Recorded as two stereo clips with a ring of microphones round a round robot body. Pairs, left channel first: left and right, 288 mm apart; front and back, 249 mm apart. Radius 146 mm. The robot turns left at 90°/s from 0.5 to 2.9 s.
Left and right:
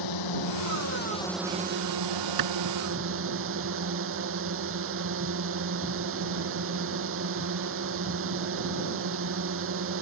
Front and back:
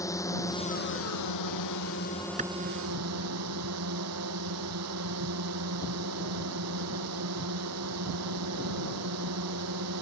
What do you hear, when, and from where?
0.0 s a drone: 80° left; by 10.0 s 140° right
2.4 s a clap: 110° right; by 2.5 s 125° right